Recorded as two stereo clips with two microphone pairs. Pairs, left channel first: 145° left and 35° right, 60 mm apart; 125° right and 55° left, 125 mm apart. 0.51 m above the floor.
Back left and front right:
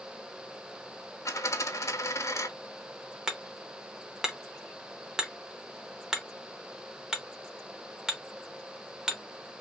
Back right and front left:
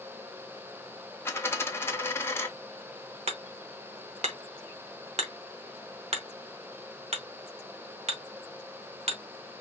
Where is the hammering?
40° left, 0.8 m.